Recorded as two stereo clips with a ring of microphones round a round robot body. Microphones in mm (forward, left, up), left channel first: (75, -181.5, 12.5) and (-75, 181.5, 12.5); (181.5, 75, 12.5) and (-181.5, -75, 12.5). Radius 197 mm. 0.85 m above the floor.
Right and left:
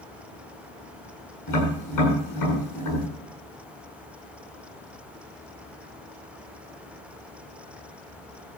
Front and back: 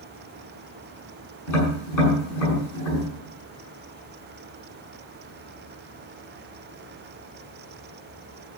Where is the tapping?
20° right, 9.5 m.